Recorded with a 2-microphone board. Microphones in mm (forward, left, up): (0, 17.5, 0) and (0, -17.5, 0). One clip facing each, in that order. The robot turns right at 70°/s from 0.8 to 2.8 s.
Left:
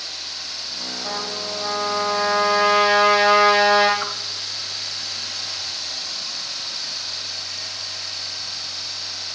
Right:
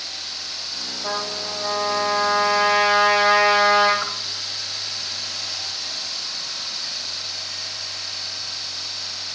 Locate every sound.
1.0 s a trumpet: 65° right, 8 m; by 3.9 s 55° left, 8 m
4.0 s a whoosh: 15° left (ahead or behind), 1.0 m